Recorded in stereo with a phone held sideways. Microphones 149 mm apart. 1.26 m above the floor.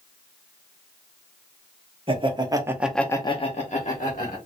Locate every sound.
2.1 s laughter: 35° right (ahead or behind), 1.2 m; by 4.4 s 55° left (ahead or behind), 1.5 m